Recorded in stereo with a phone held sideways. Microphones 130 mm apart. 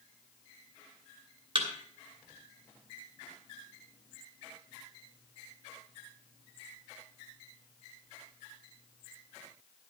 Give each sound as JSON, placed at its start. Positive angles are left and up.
{"t": 1.6, "sound": "a thud", "side_deg": -45, "distance_m": 2.5}